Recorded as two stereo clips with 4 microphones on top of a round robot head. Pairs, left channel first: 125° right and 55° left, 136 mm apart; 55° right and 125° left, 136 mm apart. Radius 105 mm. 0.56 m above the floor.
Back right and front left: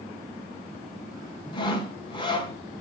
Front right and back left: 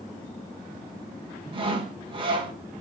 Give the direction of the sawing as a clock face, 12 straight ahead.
6 o'clock.